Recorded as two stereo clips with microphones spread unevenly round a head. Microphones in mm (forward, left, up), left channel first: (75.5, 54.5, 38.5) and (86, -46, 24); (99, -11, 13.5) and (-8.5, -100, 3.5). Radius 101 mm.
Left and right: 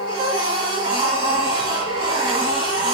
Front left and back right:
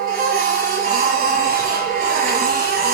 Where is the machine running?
135° right, 2.5 m.